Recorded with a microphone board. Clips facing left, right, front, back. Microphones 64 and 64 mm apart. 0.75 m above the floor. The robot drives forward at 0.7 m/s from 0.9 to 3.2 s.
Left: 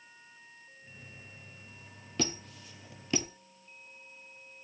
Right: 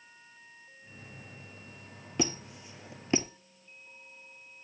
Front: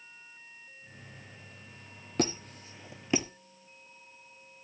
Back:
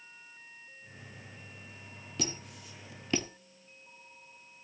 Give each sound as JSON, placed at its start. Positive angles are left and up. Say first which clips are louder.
{"t": 2.2, "sound": "a squeak", "louder": "right 3 dB, front 9 dB", "azimuth_deg": -25, "distance_m": 1.2}